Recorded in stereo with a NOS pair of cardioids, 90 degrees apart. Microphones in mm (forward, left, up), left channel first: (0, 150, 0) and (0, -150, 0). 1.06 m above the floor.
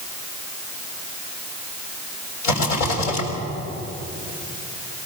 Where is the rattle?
70° left, 6.5 m.